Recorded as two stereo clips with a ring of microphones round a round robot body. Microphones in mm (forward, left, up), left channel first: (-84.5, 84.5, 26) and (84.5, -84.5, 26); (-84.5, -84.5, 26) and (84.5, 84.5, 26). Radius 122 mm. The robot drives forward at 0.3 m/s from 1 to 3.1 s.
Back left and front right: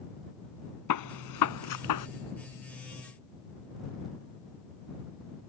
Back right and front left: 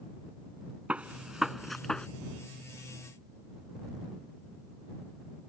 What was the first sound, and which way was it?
A gunshot, 130° left.